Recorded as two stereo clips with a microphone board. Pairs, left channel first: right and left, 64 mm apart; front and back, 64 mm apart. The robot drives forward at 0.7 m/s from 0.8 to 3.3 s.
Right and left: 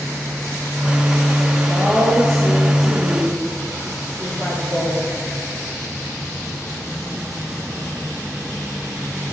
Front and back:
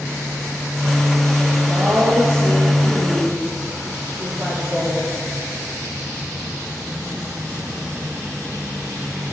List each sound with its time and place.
1.6 s a woman speaking: 155° right, 7 m; by 5.1 s 160° right, 8 m